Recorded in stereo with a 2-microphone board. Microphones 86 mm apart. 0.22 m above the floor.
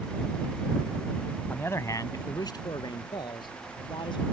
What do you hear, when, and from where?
1.5 s a man speaking: 20° left (ahead or behind); by 4.3 s 65° left (ahead or behind)